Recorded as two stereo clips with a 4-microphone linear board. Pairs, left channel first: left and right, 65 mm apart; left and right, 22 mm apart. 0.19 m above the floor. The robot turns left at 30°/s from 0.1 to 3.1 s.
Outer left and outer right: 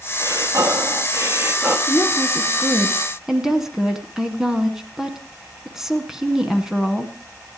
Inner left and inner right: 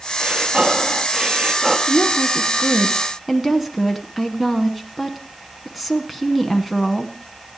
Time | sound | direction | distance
0.2 | breathing | 100° right | 2 m
1.9 | a woman speaking | 25° left | 2 m